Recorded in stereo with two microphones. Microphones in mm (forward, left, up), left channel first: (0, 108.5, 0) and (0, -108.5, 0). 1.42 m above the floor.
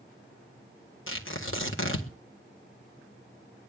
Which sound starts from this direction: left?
Tearing paper, at 1.1 s.